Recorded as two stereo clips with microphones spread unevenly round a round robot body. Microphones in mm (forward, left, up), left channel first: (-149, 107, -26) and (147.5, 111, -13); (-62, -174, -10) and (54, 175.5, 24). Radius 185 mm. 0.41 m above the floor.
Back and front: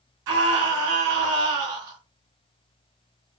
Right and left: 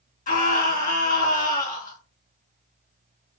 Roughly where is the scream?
Ahead right.